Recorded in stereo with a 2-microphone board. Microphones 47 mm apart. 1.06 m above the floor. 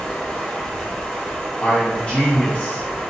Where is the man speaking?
20° left (ahead or behind), 1.1 m.